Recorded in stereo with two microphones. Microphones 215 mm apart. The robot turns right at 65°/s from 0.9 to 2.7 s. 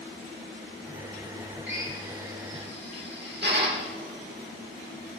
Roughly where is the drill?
Right.